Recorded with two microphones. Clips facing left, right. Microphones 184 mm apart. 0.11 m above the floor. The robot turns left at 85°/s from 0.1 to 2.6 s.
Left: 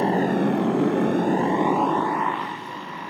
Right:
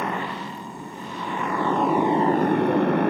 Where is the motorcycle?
150° left; by 3.1 s 65° right.